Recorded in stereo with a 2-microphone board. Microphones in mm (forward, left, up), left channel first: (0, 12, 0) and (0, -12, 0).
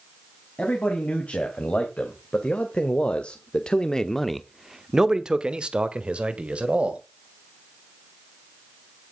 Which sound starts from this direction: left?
A man speaking, at 0.6 s.